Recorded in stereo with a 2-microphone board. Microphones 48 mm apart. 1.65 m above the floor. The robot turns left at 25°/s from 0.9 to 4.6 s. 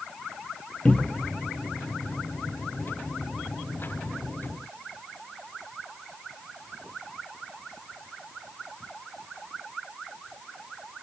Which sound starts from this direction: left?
A cupboard door, at 0.8 s.